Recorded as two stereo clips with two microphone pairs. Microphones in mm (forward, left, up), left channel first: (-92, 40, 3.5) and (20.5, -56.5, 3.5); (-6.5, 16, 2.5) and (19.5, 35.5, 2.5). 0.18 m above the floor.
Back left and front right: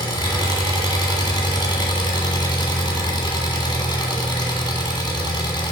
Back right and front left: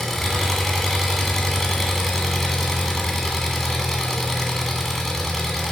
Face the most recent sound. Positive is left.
turn(degrees=140)